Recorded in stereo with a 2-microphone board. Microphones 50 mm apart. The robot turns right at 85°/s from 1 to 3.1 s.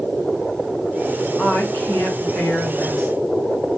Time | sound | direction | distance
1.4 | a woman speaking | 35° left | 1.4 m